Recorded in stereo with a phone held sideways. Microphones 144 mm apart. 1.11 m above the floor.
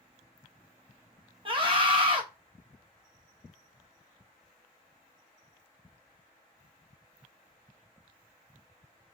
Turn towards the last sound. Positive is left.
turn(degrees=-35)  # may be behind; listen again after turning